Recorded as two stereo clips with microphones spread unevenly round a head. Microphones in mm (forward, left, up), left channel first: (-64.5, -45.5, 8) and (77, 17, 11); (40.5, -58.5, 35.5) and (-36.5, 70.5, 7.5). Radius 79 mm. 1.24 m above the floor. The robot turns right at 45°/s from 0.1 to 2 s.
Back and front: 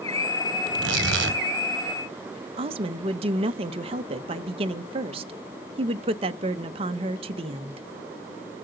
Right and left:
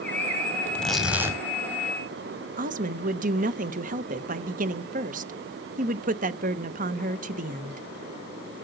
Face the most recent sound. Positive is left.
turn(degrees=80)